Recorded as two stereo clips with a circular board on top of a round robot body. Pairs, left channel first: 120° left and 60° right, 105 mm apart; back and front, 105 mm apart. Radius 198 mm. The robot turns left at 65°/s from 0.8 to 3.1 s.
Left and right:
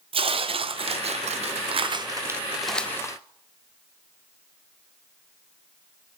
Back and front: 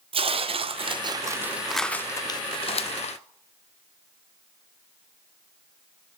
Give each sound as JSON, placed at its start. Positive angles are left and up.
{"t": 0.1, "sound": "tearing paper", "azimuth_deg": -30, "distance_m": 0.7}